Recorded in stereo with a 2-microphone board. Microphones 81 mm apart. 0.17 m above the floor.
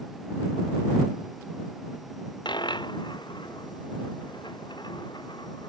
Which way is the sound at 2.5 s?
70° left (ahead or behind).